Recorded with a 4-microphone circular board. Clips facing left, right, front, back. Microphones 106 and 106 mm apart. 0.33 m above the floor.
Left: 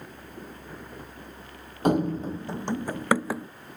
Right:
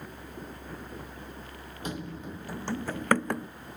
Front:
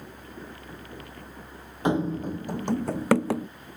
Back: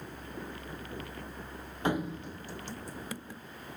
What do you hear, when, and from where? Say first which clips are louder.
1.9 s running footsteps: left 14 dB, front 7 dB; 70° left; by 3.5 s 5° left